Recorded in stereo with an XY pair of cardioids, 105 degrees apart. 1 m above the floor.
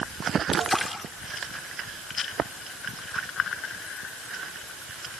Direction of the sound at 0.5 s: 10° left.